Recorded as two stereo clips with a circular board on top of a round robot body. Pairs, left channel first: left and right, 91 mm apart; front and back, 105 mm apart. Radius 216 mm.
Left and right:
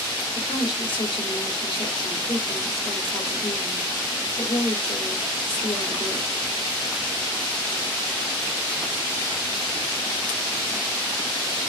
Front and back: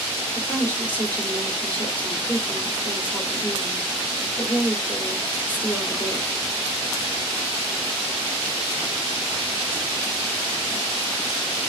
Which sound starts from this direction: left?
A woman speaking, at 0.3 s.